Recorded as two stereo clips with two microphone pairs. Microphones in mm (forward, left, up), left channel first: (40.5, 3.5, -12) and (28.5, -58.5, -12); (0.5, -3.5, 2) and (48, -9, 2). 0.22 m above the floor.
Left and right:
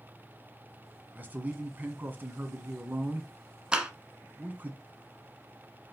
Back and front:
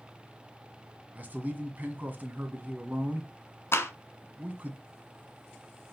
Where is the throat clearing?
I don't hear throat clearing.